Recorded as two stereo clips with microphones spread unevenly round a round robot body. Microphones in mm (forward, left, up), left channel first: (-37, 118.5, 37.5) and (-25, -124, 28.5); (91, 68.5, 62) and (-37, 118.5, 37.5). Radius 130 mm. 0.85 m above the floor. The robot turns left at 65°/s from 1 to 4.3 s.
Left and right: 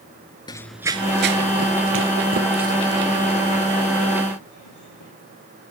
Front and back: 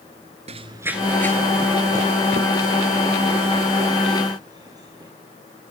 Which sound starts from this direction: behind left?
Running footsteps, at 0.5 s.